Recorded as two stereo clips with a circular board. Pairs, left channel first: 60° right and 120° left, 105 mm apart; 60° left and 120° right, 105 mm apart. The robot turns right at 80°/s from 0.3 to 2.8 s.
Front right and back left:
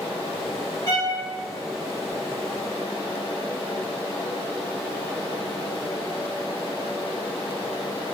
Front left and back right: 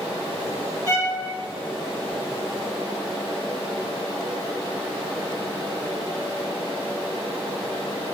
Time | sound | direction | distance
0.9 | a violin | 80° right | 1.1 m